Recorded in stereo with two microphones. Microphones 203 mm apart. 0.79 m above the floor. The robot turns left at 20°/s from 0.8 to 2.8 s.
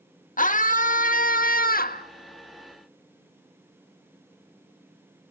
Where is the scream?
40° left (ahead or behind), 1.4 m; by 2.1 s 45° left (ahead or behind), 1.4 m.